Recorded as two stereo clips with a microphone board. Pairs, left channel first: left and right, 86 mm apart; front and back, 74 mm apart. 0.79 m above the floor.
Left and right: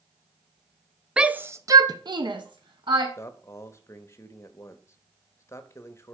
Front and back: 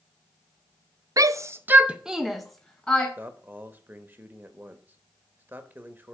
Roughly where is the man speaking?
Behind left.